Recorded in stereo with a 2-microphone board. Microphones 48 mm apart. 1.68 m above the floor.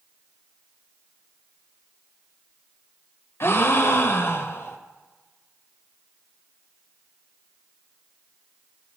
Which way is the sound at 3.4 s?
55° left (ahead or behind).